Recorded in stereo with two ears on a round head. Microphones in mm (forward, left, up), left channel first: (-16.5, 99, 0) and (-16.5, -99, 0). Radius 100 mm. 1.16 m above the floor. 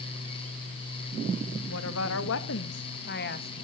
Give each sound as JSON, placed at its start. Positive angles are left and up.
{"t": 1.7, "sound": "a woman speaking", "side_deg": 75, "distance_m": 1.8}